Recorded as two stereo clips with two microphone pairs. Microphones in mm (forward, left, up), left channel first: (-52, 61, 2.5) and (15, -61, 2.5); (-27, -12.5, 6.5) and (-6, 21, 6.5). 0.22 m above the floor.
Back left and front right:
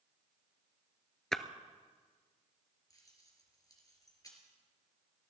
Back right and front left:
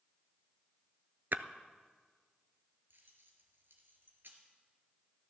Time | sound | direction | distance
1.3 | a splash | 35° left | 0.6 m
2.9 | keys jangling | 55° left | 2.5 m